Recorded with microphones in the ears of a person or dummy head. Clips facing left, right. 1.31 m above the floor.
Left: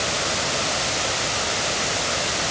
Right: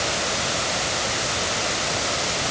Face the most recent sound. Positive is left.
No sound to turn to.